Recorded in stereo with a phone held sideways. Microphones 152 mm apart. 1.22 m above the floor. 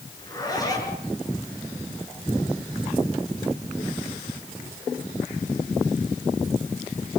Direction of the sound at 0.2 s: 25° left (ahead or behind).